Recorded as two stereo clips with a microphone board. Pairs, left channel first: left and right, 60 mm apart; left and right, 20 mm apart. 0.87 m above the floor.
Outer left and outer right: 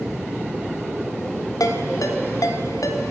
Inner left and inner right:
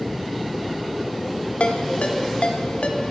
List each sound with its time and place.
1.6 s a ringtone: 65° left (ahead or behind), 1.9 m